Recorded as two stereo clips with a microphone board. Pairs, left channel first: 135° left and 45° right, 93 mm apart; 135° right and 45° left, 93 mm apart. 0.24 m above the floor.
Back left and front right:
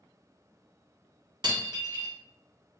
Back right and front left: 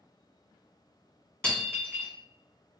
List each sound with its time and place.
1.4 s breaking glass: 60° right, 1.4 m